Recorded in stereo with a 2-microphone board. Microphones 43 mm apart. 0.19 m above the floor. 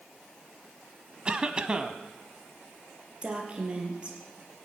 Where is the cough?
20° right (ahead or behind), 1.0 m.